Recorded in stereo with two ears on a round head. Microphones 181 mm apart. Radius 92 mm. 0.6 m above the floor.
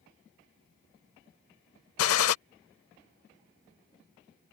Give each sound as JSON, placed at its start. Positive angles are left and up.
{"t": 2.0, "sound": "a gunshot", "side_deg": 75}